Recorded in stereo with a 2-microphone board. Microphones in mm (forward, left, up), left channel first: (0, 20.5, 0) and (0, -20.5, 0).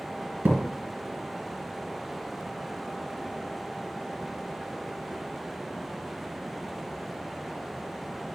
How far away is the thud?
About 2.5 m.